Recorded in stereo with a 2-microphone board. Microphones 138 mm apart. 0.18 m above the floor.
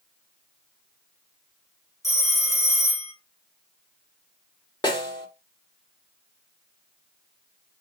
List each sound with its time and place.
2.0 s a phone ringing: 50° left (ahead or behind), 1.9 m
4.8 s a snare drum: 30° left (ahead or behind), 2.0 m